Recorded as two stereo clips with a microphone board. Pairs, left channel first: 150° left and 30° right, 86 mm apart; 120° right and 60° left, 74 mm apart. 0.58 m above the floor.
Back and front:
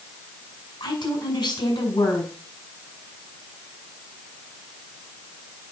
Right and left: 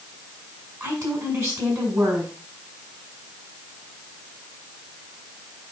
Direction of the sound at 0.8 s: 115° left.